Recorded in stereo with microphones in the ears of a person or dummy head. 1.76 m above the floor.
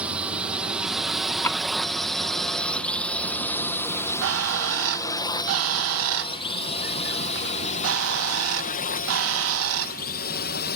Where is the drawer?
15° left (ahead or behind).